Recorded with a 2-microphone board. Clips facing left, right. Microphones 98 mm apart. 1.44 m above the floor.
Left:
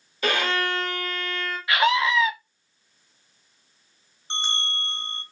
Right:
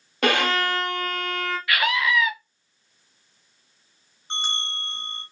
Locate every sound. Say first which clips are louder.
0.2 s a violin: right 3 dB; 65° right (ahead or behind), 1.4 m
1.7 s a scream: left 3 dB; 25° left (ahead or behind), 0.8 m
4.3 s a bell: left 1 dB; 5° right (ahead or behind), 2 m